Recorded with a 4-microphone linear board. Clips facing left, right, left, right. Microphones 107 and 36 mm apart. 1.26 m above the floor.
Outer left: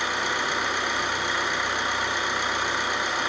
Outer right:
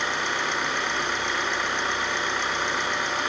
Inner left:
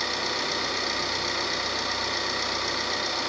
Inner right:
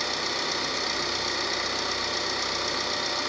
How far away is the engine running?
About 2 m.